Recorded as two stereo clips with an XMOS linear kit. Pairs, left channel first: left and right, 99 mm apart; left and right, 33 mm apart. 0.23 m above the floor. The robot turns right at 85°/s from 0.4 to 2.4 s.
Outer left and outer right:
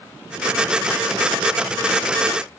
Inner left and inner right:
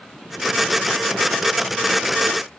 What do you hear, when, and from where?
Only background noise.